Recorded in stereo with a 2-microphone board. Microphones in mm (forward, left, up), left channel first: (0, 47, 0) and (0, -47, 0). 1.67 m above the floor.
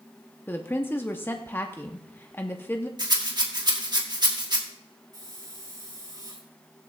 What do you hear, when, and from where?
0.5 s a woman speaking: 25° left (ahead or behind), 0.8 m
3.0 s a rattle: 50° right (ahead or behind), 1.6 m
5.1 s a hiss: 45° right (ahead or behind), 6 m